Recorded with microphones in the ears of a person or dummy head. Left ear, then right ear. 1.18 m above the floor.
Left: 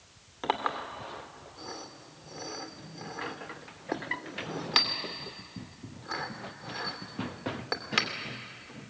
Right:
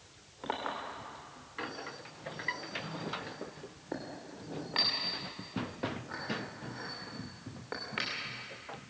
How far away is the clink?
About 2.5 m.